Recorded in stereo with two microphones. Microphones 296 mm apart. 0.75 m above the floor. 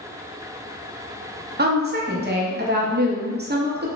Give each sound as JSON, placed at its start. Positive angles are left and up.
{"t": 1.6, "sound": "a woman speaking", "side_deg": -35, "distance_m": 0.6}